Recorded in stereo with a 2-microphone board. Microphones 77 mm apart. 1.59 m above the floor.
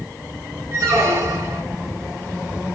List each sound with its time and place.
0.7 s a squeak: 40° right (ahead or behind), 1.8 m